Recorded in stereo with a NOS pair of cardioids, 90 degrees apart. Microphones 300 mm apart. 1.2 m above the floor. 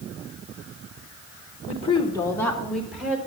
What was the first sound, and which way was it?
A woman speaking, 25° left.